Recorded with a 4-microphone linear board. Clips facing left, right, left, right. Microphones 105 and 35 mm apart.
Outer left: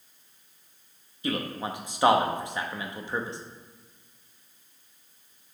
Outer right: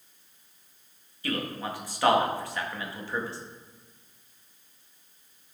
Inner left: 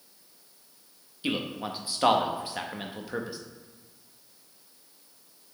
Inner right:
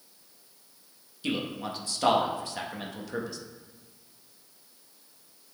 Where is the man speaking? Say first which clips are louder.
Outer left 1 dB, inner left 1 dB; 20° left (ahead or behind), 0.7 m.